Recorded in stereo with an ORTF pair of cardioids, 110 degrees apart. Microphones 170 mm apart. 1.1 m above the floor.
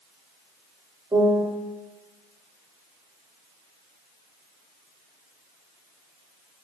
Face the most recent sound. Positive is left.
turn(degrees=-15)